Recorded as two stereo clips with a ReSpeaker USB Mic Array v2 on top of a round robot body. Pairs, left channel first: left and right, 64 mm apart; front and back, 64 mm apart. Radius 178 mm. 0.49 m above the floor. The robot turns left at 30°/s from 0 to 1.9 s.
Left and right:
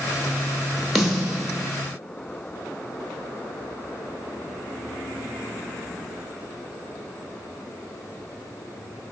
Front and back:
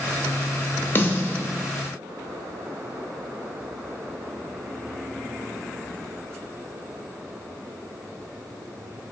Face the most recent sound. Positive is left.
turn(degrees=-35)